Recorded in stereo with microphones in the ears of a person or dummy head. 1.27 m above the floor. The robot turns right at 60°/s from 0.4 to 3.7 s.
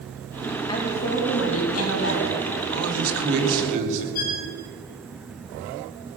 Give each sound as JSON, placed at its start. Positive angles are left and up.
{"t": 0.7, "sound": "a woman speaking", "azimuth_deg": 25, "distance_m": 3.0}
{"t": 2.7, "sound": "a man speaking", "azimuth_deg": -100, "distance_m": 3.0}
{"t": 4.2, "sound": "a violin", "side_deg": 50, "distance_m": 2.0}